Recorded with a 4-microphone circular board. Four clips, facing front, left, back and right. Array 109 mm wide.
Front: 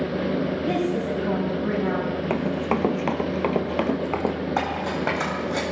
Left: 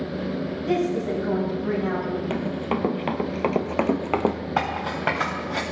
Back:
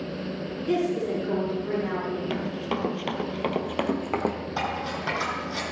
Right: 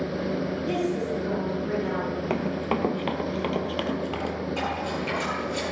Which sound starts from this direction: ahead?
A woman speaking, at 0.7 s.